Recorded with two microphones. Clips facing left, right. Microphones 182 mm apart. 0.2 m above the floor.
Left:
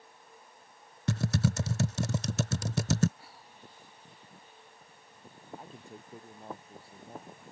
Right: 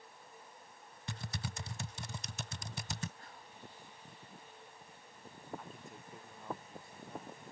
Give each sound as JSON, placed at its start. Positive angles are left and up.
{"t": 1.1, "sound": "typing on a keyboard", "side_deg": 70}
{"t": 3.2, "sound": "whispering", "side_deg": 10}
{"t": 5.6, "sound": "a man speaking", "side_deg": 30}